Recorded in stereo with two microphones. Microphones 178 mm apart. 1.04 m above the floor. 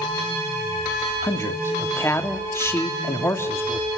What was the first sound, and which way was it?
A man speaking, 15° left (ahead or behind).